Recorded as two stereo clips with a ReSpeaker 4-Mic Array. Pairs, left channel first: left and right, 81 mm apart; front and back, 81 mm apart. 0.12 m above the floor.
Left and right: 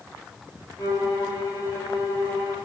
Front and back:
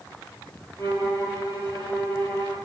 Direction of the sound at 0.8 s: 50° left.